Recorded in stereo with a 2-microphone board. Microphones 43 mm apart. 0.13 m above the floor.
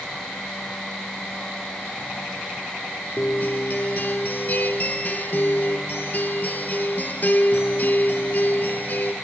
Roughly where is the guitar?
Left.